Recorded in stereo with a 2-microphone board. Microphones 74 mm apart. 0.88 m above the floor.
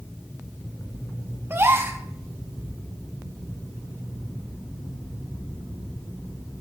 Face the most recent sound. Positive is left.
turn(degrees=-35)  # may be behind; listen again after turning